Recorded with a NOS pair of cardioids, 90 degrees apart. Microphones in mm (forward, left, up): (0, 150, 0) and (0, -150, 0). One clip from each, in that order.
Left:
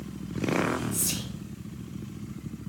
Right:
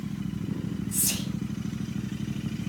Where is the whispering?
15° right, 0.8 m.